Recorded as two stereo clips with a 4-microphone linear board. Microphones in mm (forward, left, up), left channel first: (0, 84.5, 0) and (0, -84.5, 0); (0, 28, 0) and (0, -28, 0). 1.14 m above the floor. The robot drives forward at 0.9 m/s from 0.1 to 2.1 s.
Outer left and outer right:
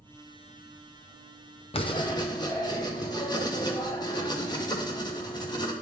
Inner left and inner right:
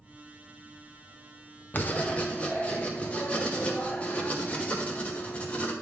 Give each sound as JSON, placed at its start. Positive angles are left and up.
{"t": 1.7, "sound": "writing", "side_deg": 35, "distance_m": 0.7}